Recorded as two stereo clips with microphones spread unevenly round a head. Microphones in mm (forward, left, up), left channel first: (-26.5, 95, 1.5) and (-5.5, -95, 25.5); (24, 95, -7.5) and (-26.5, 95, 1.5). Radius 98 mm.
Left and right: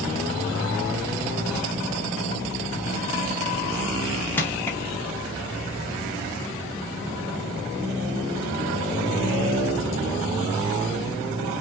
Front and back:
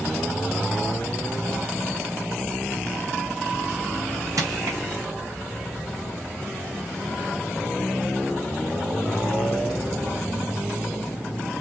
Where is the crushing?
175° left, 0.9 m.